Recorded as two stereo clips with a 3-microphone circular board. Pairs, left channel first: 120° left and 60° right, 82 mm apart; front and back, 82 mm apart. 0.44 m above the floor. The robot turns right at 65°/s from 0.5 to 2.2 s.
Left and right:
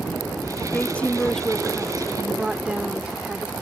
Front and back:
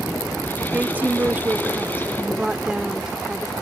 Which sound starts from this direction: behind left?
A woman speaking, at 0.7 s.